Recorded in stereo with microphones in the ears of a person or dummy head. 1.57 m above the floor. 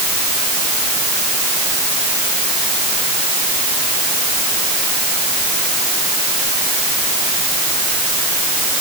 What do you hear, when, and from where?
Only background noise.